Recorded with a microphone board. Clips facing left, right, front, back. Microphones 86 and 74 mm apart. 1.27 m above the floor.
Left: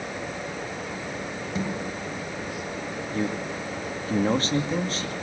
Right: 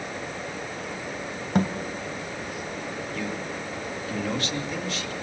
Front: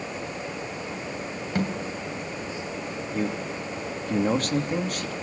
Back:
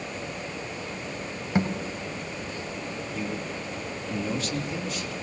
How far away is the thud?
About 3 m.